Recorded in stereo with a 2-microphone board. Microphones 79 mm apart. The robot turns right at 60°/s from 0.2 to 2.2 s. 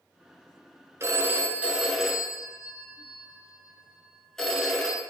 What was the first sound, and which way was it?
A phone ringing, 65° right.